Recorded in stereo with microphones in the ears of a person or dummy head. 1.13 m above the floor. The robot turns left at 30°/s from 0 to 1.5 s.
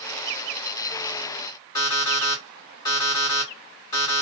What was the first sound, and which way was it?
An alarm clock, 25° left (ahead or behind).